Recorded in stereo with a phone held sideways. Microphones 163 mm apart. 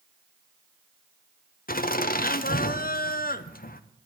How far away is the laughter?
About 0.8 m.